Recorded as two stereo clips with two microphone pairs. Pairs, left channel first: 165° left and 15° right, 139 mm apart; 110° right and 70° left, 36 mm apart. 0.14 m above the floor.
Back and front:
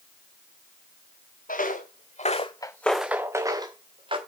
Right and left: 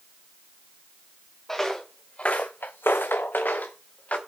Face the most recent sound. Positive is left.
turn(degrees=-65)